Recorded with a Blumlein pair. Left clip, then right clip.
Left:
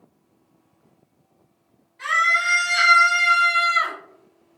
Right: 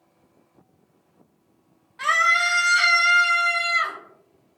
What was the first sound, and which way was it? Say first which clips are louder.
A scream: even; 40° right.